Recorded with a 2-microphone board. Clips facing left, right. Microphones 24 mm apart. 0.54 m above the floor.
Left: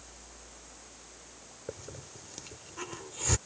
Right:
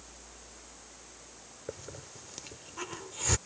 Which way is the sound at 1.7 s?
10° right (ahead or behind).